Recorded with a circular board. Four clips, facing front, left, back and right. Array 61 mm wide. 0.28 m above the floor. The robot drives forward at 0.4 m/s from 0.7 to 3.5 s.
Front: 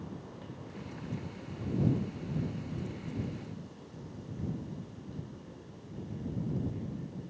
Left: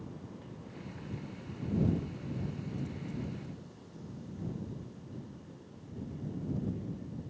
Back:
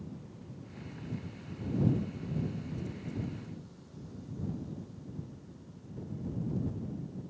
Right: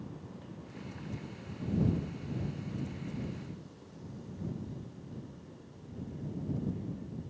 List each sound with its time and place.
Only background noise.